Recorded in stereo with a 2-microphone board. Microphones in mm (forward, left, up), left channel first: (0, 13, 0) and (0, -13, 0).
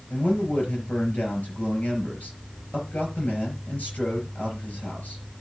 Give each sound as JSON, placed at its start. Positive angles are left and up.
{"t": 0.1, "sound": "a man speaking", "side_deg": 75, "distance_m": 5.0}